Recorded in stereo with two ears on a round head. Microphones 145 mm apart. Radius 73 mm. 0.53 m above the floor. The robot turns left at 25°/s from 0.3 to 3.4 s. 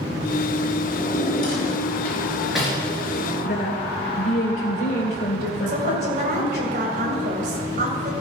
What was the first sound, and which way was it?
A drawer, 40° left (ahead or behind).